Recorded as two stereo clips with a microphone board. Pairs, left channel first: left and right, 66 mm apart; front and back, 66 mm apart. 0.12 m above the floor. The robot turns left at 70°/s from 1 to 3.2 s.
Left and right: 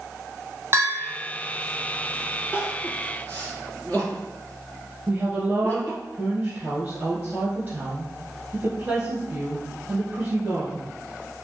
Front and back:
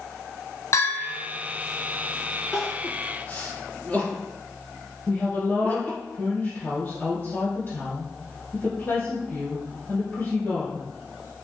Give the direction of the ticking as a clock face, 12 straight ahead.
No ticking in this recording.